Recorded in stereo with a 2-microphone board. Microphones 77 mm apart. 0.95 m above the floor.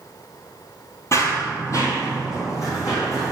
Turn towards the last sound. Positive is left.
turn(degrees=45)  # may be behind; listen again after turning